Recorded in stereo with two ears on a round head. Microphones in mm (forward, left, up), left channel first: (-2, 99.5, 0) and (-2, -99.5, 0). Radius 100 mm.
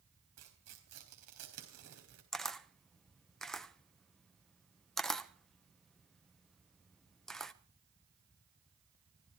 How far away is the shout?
No shout in this recording.